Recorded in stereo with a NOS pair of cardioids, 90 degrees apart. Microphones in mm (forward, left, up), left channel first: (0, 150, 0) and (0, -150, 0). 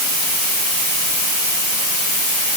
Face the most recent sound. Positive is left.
No sound to turn to.